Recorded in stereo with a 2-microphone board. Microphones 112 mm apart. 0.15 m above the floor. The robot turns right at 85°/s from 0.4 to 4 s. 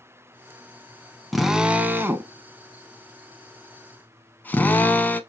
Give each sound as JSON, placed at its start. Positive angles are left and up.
{"t": 1.3, "sound": "a drill", "side_deg": 0, "distance_m": 0.6}